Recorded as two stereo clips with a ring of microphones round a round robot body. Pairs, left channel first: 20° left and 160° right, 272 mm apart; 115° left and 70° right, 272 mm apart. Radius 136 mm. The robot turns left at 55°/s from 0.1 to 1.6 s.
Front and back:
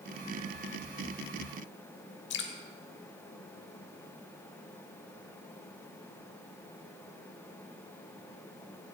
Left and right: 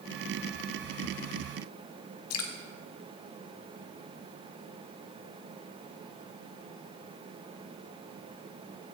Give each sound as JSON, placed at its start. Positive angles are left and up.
{"t": 2.3, "sound": "dripping", "azimuth_deg": 75, "distance_m": 1.7}